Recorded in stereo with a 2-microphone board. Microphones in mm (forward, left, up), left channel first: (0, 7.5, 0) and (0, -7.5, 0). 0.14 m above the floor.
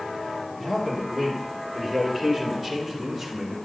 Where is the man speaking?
35° left (ahead or behind), 3.5 m; by 3.5 s centre (ahead or behind), 2.5 m.